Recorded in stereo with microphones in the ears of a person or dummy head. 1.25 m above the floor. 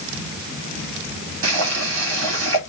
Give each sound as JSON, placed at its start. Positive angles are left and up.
{"t": 1.4, "sound": "boiling", "side_deg": -80, "distance_m": 2.5}